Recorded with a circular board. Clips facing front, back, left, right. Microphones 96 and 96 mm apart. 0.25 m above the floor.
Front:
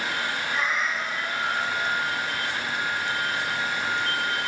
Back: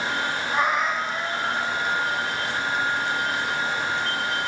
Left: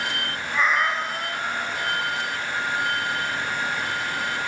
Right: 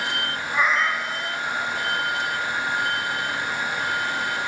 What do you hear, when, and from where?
0.5 s a cat meowing: 165° right, 0.7 m; by 2.0 s 95° left, 1.5 m